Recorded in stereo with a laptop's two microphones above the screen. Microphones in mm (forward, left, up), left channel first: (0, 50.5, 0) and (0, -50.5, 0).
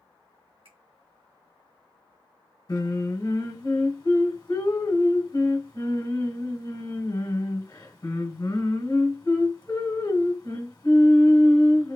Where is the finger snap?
80° right, 1.8 m.